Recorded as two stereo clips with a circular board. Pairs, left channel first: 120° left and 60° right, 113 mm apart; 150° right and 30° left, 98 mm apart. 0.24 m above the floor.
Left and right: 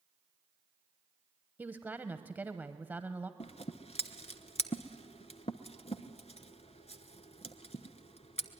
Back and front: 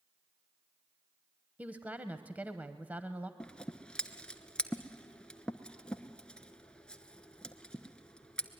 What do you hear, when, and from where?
1.6 s a woman speaking: 15° right, 0.9 m
3.4 s scissors: 130° left, 1.0 m